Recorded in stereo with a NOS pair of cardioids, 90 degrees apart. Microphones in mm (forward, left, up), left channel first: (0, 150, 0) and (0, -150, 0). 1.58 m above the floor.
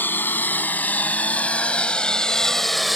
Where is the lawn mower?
5° left; by 3.0 s straight ahead.